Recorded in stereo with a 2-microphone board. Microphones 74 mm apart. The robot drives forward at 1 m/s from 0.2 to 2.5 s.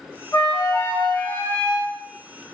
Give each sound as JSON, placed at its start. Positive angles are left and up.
{"t": 0.3, "sound": "a flute", "side_deg": 35, "distance_m": 1.3}